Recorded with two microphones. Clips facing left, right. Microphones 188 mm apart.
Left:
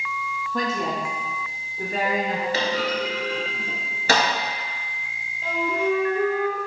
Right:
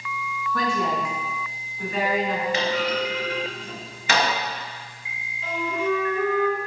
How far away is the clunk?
About 1.0 m.